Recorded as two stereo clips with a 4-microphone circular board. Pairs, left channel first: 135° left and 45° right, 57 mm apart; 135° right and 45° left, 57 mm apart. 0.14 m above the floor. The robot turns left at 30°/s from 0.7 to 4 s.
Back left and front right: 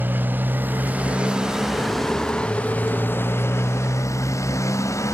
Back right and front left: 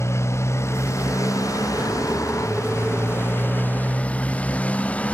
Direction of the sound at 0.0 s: 100° right.